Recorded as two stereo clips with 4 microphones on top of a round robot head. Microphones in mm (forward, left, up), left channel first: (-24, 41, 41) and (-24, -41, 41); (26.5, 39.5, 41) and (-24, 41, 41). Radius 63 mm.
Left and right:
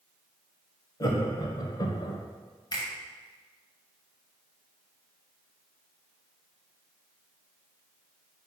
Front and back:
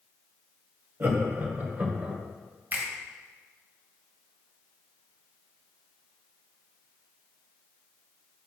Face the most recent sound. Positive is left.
turn(degrees=125)